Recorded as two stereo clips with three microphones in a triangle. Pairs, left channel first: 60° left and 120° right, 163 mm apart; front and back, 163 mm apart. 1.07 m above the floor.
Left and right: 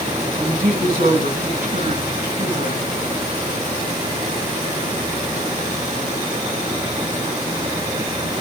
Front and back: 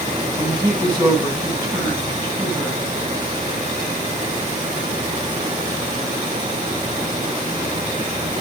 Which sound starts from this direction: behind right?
A woman speaking, at 0.3 s.